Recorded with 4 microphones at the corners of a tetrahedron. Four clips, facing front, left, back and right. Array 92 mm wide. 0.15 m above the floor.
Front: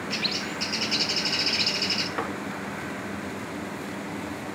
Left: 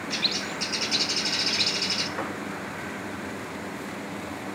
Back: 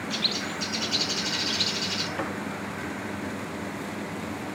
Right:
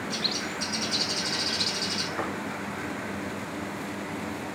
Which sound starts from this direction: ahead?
Tapping, at 2.2 s.